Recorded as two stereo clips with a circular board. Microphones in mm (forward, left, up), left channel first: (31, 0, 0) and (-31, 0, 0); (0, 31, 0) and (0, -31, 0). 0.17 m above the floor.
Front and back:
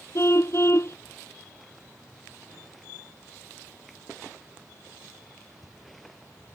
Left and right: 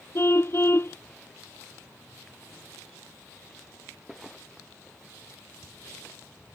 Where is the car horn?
45° left.